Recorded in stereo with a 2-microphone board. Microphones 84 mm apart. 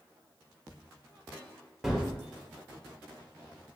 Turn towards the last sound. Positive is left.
turn(degrees=-5)  # may be behind; listen again after turning